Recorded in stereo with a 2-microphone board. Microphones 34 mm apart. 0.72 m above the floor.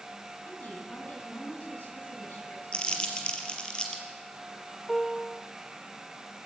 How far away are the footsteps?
No footsteps in this recording.